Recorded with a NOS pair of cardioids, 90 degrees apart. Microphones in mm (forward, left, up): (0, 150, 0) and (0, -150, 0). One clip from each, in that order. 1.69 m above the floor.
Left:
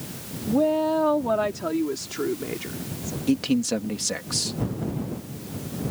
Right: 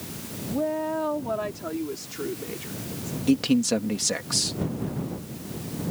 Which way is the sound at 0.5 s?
45° left.